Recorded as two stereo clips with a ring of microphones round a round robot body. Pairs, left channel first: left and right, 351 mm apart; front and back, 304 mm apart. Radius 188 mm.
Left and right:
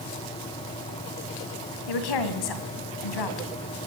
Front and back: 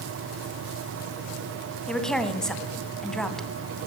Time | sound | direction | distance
1.9 | a woman speaking | 90° left | 2.5 m